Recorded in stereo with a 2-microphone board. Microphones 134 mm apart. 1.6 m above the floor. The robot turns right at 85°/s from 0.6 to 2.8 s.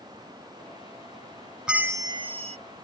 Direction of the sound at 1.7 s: 175° right.